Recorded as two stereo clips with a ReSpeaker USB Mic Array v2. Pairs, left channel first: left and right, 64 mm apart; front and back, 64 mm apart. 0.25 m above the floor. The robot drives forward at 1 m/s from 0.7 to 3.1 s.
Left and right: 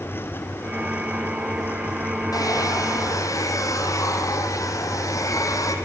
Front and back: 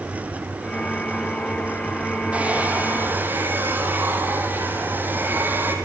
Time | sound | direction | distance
2.3 | a hair dryer | 110° left | 4 m